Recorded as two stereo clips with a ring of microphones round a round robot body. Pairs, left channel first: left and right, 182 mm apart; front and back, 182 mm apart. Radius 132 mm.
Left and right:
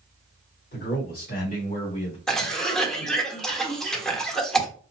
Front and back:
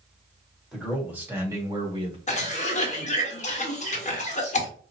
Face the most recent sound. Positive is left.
turn(degrees=5)